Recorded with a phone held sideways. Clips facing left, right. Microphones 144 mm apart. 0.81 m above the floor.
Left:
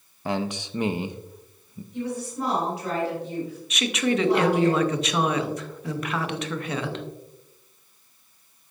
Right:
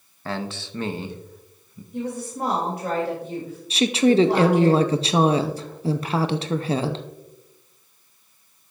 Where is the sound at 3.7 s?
35° right (ahead or behind), 0.6 m.